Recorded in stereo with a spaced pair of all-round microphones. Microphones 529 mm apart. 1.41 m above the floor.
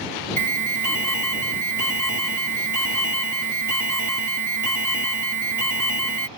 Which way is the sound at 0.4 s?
35° right (ahead or behind).